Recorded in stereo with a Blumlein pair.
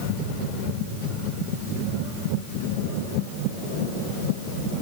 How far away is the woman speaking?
No woman speaking in this recording.